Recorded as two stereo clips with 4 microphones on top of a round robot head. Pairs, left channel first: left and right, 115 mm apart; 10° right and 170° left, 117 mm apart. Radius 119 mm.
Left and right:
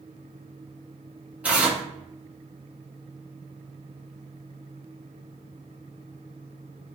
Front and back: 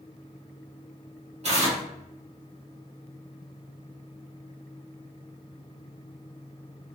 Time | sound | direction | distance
1.4 | tearing paper | 170° right | 1.7 m